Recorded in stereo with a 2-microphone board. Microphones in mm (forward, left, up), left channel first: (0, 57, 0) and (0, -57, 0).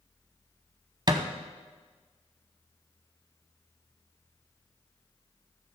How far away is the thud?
About 0.8 m.